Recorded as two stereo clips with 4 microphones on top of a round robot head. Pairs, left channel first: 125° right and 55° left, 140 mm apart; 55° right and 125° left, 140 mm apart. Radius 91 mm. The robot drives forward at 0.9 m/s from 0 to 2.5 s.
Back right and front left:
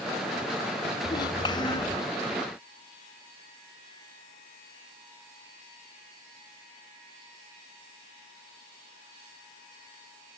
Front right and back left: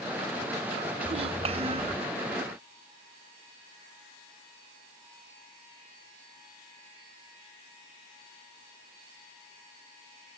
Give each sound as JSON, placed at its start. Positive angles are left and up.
{"t": 1.1, "sound": "a child speaking", "azimuth_deg": 170}